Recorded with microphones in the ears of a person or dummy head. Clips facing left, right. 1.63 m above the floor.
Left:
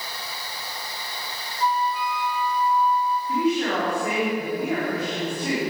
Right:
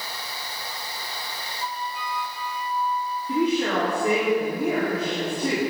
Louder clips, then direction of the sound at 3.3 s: Right 2 dB; 85° right.